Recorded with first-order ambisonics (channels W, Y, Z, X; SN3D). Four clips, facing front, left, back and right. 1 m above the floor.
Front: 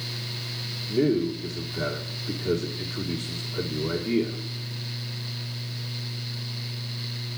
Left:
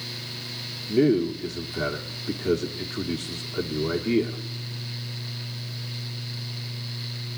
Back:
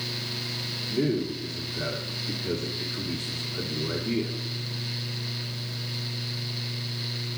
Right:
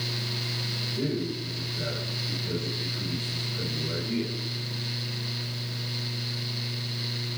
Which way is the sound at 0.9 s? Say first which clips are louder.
Left 13 dB, front 4 dB; 85° left.